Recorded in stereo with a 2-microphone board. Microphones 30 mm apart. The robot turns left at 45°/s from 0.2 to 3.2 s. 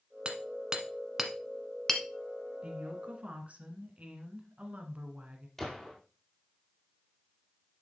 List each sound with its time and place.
0.2 s hammering: 35° right (ahead or behind), 1.1 m; by 2.0 s 20° left (ahead or behind), 1.1 m
2.6 s a woman speaking: 45° right (ahead or behind), 1.5 m; by 5.5 s 50° right (ahead or behind), 1.5 m
5.6 s a gunshot: 10° left (ahead or behind), 1.7 m